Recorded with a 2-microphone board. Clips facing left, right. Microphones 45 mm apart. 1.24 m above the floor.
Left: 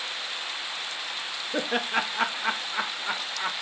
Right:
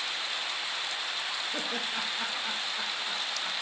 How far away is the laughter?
About 0.5 m.